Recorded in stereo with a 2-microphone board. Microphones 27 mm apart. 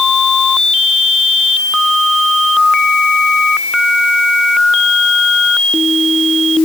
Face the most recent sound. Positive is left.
No sound to turn to.